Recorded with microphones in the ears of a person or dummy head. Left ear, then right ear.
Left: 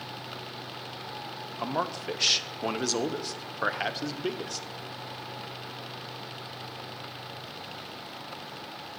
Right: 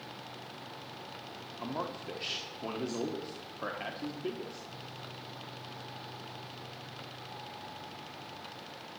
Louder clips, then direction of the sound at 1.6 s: Left 7 dB; 55° left (ahead or behind).